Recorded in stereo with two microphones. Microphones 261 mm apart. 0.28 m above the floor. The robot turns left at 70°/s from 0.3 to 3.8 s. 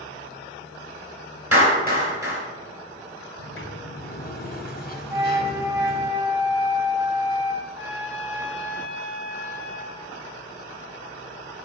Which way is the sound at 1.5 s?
60° right (ahead or behind).